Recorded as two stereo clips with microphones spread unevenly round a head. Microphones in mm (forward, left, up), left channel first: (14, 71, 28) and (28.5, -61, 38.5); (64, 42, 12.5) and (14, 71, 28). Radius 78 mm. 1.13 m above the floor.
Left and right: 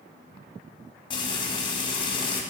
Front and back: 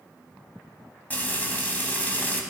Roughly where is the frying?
Ahead left.